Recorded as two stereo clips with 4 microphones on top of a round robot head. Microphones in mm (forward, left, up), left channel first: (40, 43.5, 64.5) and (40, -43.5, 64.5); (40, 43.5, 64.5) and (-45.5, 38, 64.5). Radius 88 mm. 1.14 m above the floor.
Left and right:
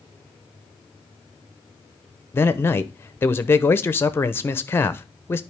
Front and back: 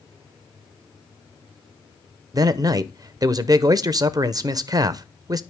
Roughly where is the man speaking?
Behind left.